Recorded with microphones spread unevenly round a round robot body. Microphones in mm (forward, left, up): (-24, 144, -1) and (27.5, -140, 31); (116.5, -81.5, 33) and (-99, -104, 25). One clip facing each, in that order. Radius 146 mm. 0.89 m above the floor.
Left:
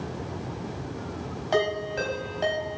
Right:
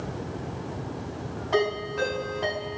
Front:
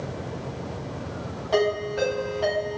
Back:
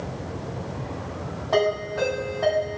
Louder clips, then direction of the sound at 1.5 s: Right 1 dB, even; 70° left.